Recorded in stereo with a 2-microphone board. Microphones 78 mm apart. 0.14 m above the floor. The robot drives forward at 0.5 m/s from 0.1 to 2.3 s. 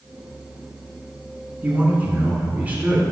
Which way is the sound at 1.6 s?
25° right (ahead or behind).